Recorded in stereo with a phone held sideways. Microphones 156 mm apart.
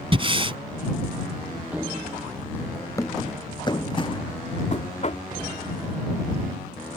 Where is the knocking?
50° left (ahead or behind).